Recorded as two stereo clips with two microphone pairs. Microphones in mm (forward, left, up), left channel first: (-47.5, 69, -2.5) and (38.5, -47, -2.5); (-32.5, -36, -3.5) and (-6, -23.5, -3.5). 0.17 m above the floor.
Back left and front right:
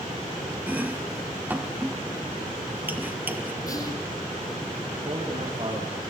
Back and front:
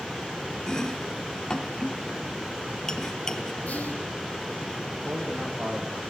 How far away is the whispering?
About 3 m.